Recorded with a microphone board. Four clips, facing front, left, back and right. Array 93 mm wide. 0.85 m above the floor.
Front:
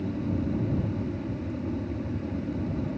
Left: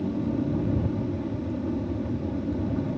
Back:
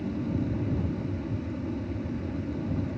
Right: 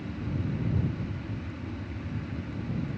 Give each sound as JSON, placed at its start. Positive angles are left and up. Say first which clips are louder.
{"t": 0.0, "sound": "an aircraft", "louder": "left 8 dB, front 1 dB", "azimuth_deg": 80}